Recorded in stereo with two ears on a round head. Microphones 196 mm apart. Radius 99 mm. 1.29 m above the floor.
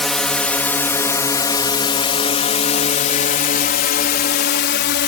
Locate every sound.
0.0 s a drone: centre (ahead or behind); by 5.1 s 55° left (ahead or behind)